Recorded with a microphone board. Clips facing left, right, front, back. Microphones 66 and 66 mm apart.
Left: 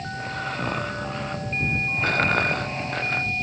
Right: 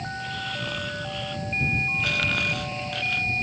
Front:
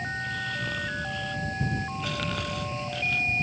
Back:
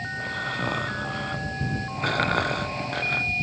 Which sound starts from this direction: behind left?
Snoring, at 0.1 s.